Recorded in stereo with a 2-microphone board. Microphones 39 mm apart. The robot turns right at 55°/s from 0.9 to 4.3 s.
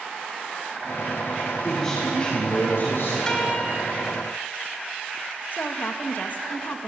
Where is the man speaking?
Straight ahead, 9 m; by 3.2 s 80° left, 9 m.